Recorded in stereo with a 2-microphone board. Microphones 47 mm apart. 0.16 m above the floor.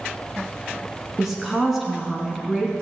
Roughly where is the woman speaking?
Centre.